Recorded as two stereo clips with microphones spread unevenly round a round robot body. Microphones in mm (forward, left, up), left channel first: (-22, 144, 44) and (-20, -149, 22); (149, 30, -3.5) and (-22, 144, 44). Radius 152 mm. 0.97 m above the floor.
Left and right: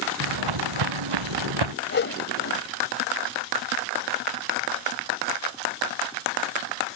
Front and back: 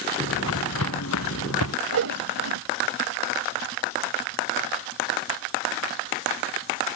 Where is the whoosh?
145° left.